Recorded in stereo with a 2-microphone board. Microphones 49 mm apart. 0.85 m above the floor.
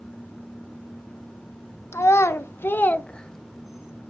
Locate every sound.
1.9 s a child speaking: 65° left (ahead or behind), 1.1 m; by 3.9 s 20° right (ahead or behind), 0.8 m